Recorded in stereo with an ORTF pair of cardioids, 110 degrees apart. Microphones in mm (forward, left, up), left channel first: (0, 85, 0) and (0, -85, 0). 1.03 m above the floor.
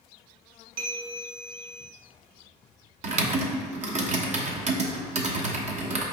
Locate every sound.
0.8 s a bell: 60° right, 0.8 m
3.0 s typing on a keyboard: 45° right, 0.9 m